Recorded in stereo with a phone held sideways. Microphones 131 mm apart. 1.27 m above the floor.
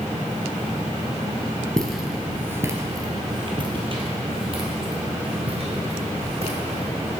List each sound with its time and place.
1.8 s footsteps: 5° left (ahead or behind), 1.3 m; by 7.1 s 50° right (ahead or behind), 4.5 m